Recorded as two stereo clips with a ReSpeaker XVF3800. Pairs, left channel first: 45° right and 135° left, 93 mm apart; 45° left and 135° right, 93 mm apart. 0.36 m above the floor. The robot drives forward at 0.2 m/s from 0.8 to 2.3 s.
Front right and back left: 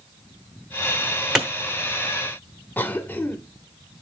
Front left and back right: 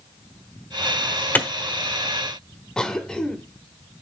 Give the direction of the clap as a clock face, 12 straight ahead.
10 o'clock.